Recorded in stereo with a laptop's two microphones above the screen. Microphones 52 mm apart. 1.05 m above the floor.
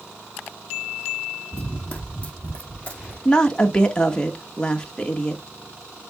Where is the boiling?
No boiling in this recording.